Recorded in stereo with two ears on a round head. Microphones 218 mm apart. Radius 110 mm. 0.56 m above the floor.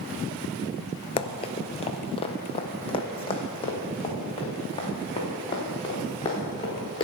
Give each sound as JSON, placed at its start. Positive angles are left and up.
{"t": 1.2, "sound": "running footsteps", "side_deg": 25, "distance_m": 0.6}